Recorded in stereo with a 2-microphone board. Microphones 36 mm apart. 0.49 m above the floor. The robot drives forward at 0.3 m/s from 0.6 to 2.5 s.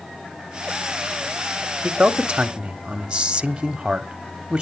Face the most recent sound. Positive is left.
turn(degrees=-25)  # may be behind; listen again after turning